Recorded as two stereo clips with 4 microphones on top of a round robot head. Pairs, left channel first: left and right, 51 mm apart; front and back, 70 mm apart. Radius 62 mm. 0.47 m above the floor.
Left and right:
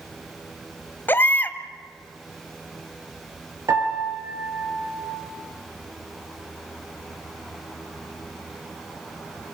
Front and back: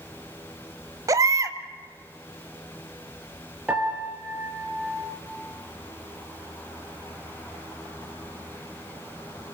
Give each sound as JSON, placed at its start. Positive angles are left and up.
{"t": 1.1, "sound": "a baby crying", "azimuth_deg": 140, "distance_m": 1.5}
{"t": 3.7, "sound": "a piano", "azimuth_deg": -105, "distance_m": 6.0}